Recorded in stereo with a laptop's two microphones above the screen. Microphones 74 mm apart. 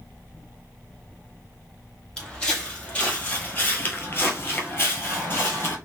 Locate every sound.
2.2 s footsteps: 15° left (ahead or behind), 1.6 m; by 5.8 s 30° left (ahead or behind), 1.4 m